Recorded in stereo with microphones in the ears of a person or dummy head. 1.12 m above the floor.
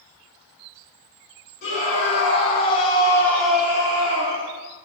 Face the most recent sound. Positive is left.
turn(degrees=-35)  # may be behind; listen again after turning